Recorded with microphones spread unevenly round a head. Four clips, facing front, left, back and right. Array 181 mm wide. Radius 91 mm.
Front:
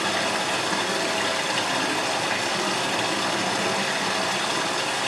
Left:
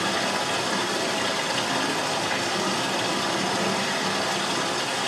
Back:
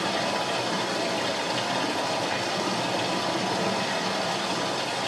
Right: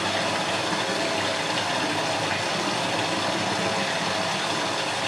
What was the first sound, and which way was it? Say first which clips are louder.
Running water: even, front 1 dB; 85° right.